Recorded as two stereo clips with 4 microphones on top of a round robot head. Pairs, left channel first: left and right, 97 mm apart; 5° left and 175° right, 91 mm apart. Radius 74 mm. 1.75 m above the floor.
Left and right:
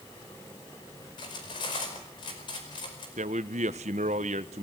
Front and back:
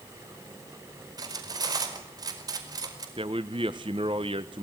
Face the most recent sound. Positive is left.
turn(degrees=-120)